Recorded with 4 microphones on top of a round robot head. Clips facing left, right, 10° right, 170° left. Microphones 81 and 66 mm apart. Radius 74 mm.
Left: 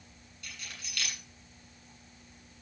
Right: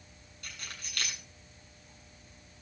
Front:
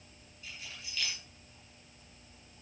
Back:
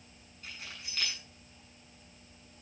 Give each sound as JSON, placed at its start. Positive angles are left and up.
{"t": 0.4, "sound": "keys jangling", "azimuth_deg": -135, "distance_m": 8.0}